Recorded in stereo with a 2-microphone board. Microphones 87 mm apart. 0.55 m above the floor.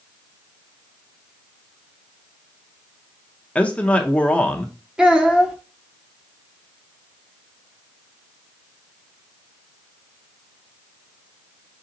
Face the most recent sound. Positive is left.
turn(degrees=-10)  # may be behind; listen again after turning